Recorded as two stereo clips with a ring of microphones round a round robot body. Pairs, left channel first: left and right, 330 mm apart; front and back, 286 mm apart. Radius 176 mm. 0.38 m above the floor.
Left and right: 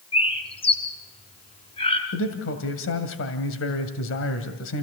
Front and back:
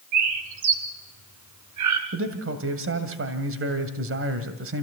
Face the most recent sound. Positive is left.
turn(degrees=140)